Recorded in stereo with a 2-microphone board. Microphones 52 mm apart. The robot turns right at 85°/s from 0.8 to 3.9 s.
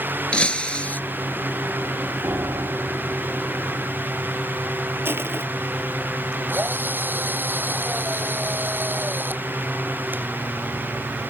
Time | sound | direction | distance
0.3 | breaking glass | 20° left (ahead or behind) | ?
2.2 | a piano | 125° right | ?
5.0 | crushing | 45° right (ahead or behind) | ?
6.5 | a drill | 40° right (ahead or behind) | ?